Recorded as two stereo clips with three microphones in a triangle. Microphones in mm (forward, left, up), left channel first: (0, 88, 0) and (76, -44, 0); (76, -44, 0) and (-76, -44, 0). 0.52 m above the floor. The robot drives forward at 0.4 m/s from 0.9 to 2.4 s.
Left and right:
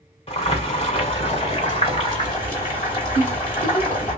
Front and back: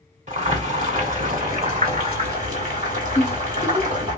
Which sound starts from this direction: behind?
Boiling, at 0.3 s.